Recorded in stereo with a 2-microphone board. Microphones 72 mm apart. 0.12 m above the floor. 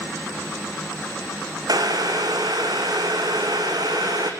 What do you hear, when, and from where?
1.7 s boiling: 65° right (ahead or behind), 2.0 m